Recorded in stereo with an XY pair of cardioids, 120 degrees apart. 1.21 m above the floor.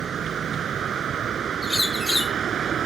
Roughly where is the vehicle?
Ahead right.